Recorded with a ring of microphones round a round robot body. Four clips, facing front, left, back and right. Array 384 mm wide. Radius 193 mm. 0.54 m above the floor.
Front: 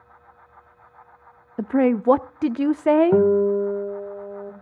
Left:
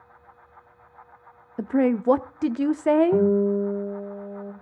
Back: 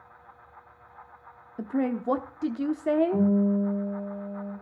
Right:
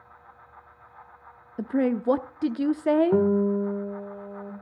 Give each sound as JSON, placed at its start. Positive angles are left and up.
{"t": 1.6, "sound": "a woman speaking", "azimuth_deg": 15, "distance_m": 0.7}
{"t": 3.1, "sound": "a guitar", "azimuth_deg": -5, "distance_m": 1.9}